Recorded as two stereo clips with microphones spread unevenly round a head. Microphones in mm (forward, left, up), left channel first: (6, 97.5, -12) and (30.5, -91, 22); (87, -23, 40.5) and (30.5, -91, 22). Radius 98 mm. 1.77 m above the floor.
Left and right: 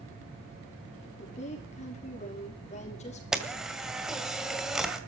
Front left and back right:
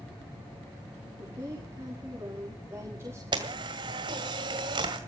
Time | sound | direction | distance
1.2 | a woman speaking | 155° left | 5 m
3.3 | a camera shutter | 155° right | 1.8 m